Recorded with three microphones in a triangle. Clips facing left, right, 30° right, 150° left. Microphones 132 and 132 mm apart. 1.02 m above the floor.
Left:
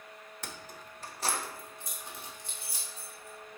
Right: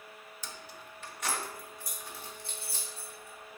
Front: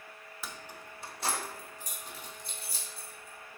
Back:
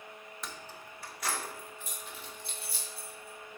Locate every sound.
0.4 s keys jangling: 60° left, 0.6 m; by 3.6 s 10° left, 2.5 m